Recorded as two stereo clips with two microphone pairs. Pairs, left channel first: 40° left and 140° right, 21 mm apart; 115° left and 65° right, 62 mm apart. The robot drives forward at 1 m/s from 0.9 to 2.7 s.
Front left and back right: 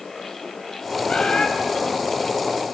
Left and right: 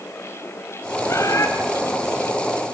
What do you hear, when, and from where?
1.1 s a bird: 80° left, 3 m; by 1.5 s 85° left, 3 m